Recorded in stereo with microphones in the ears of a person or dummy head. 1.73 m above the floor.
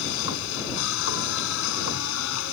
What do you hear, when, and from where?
0.0 s a machine running: 75° left (ahead or behind)